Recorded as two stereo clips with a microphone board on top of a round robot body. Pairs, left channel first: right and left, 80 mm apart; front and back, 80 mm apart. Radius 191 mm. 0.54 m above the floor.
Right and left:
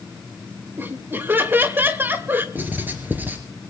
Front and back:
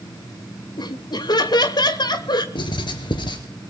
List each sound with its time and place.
0.8 s laughter: 30° left, 2.5 m
2.5 s writing: 25° left, 2.5 m